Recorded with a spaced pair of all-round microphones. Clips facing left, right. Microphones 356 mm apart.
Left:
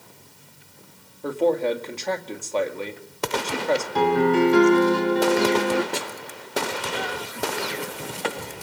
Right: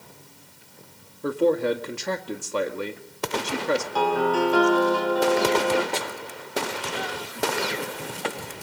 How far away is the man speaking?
About 2 m.